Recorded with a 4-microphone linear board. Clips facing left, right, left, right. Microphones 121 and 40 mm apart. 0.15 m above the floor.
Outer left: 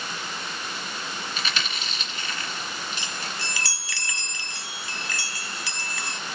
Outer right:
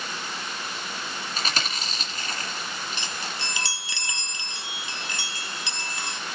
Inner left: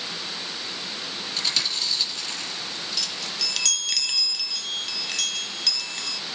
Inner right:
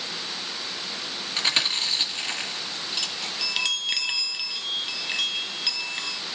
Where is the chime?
25° right (ahead or behind), 0.5 m.